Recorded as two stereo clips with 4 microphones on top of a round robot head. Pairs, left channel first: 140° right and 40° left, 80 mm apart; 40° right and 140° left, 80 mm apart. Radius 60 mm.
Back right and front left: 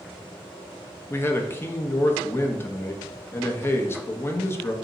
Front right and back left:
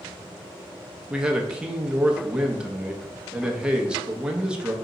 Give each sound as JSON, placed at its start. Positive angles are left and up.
{"t": 1.1, "sound": "a man speaking", "azimuth_deg": -150, "distance_m": 0.8}